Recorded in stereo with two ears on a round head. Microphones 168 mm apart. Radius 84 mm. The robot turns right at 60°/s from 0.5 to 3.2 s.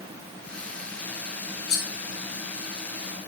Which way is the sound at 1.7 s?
55° left (ahead or behind).